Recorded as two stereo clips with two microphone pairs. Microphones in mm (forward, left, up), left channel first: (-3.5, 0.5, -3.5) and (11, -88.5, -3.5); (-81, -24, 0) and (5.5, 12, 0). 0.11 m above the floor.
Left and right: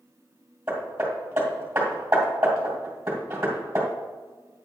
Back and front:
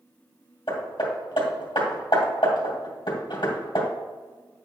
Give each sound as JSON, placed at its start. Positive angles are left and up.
{"t": 0.7, "sound": "hammering", "azimuth_deg": -145, "distance_m": 2.5}